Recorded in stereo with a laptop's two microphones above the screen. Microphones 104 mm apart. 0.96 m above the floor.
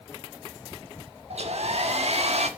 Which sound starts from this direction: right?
A hair dryer, at 1.3 s.